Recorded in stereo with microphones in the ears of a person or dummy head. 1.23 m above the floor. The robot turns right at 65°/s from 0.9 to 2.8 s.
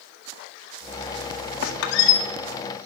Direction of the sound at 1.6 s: 70° left.